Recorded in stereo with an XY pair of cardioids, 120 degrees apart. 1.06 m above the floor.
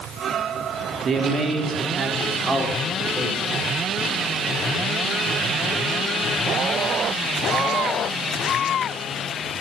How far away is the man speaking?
About 2.5 m.